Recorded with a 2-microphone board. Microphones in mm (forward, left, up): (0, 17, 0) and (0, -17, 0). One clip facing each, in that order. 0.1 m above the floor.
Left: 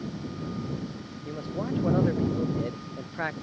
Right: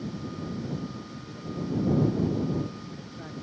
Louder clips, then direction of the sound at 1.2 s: Left 2 dB; 75° left (ahead or behind).